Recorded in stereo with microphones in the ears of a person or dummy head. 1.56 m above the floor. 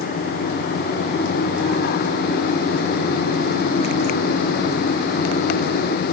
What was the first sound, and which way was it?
Only background noise.